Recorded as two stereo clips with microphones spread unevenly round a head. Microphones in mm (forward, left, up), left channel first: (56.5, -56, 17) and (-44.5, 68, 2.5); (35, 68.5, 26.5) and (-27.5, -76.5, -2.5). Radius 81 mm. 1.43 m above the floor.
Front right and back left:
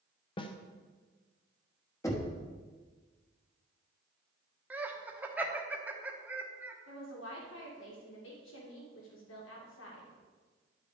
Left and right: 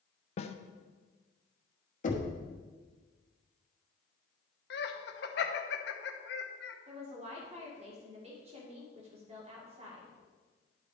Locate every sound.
0.4 s a snare drum: 10° left, 0.6 m
2.0 s knocking: 20° left, 1.2 m
4.7 s laughter: 50° left, 0.9 m
6.9 s a woman speaking: 65° right, 2.0 m